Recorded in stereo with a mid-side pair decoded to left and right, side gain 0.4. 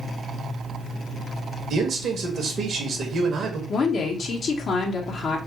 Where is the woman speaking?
60° left, 1.2 m.